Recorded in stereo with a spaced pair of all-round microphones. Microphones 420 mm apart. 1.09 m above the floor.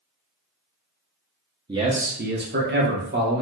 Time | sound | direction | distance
1.7 | a man speaking | 10° right (ahead or behind) | 0.6 m